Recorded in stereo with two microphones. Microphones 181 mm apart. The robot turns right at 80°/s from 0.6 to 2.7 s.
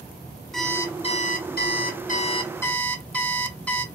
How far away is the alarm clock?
About 0.6 m.